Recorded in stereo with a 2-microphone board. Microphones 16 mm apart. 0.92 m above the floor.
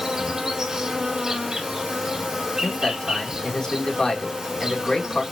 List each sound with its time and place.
0.0 s an insect: 35° right (ahead or behind), 1.4 m
2.6 s a man speaking: 40° left (ahead or behind), 2.5 m